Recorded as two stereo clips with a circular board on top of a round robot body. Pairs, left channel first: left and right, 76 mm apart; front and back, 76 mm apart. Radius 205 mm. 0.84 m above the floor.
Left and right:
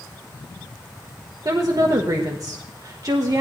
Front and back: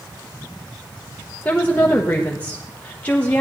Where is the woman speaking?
65° right, 1.3 m.